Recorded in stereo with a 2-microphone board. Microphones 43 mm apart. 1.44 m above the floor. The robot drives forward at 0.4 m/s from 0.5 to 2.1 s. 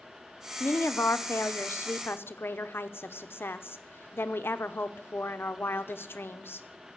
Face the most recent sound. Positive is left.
turn(degrees=70)  # may be behind; listen again after turning